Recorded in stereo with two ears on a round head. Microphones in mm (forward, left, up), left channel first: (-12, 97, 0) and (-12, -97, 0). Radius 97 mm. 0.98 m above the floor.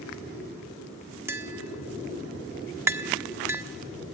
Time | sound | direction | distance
1.3 | tapping | 10° right (ahead or behind) | 1.6 m